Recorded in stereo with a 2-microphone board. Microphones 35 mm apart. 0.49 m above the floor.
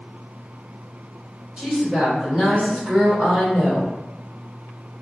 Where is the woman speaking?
15° right (ahead or behind), 1.3 m.